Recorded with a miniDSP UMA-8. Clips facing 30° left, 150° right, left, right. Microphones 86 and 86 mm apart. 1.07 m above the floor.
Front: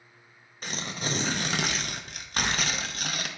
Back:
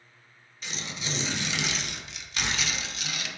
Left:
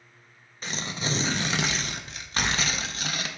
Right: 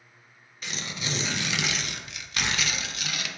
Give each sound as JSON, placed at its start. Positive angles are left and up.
{"t": 0.6, "sound": "tearing paper", "azimuth_deg": 50, "distance_m": 0.6}